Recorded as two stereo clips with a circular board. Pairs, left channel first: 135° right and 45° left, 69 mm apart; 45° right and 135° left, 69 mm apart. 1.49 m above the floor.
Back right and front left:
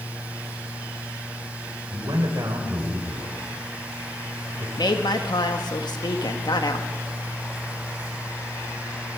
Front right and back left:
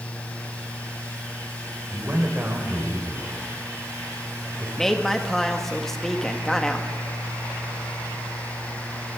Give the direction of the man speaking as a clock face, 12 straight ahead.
10 o'clock.